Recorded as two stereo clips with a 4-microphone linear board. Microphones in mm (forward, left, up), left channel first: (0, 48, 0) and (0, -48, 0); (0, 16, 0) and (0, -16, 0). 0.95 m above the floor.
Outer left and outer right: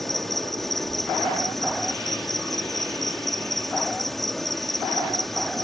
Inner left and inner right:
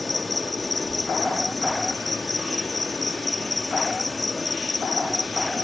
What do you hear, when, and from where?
0.0 s an insect: centre (ahead or behind)